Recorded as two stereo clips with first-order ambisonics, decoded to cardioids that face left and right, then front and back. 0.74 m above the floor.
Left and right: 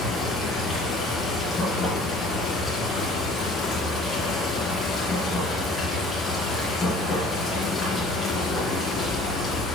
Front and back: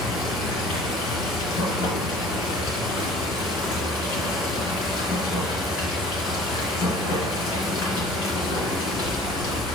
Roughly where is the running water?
Ahead.